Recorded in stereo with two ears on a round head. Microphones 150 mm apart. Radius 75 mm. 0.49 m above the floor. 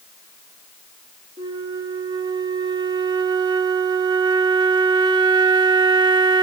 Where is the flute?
25° right (ahead or behind), 0.6 m.